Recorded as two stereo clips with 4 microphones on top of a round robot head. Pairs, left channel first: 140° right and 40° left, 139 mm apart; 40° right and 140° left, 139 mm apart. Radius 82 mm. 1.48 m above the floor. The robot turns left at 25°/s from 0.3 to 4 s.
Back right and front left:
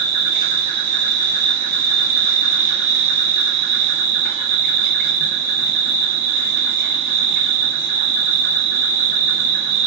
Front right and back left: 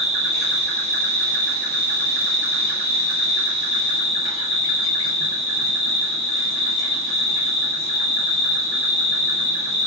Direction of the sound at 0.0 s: 60° left.